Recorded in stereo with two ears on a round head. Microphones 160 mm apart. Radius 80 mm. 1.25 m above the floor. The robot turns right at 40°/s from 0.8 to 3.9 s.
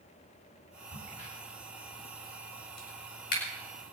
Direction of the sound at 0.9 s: 25° left (ahead or behind).